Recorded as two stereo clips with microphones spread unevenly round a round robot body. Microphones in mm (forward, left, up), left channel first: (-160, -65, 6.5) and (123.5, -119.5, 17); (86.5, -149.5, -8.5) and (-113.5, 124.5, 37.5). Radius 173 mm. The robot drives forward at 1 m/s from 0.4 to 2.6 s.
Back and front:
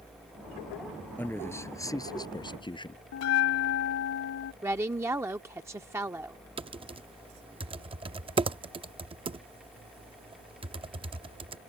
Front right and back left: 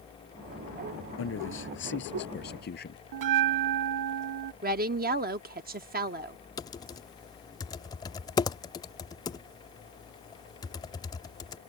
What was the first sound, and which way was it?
A man speaking, 105° right.